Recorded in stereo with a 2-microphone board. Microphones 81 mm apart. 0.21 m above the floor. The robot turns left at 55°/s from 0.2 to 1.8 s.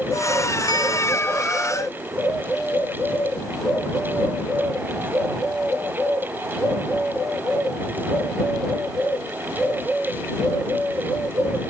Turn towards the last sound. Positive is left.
turn(degrees=-5)